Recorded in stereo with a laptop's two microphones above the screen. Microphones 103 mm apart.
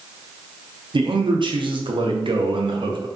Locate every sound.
0.9 s a man speaking: 55° right (ahead or behind), 0.5 m